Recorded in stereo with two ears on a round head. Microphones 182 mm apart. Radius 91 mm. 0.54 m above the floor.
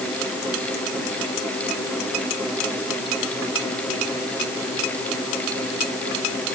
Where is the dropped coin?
No dropped coin in this recording.